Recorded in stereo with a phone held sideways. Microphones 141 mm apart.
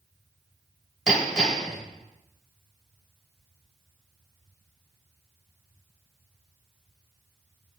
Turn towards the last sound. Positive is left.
turn(degrees=0)  # may be behind; listen again after turning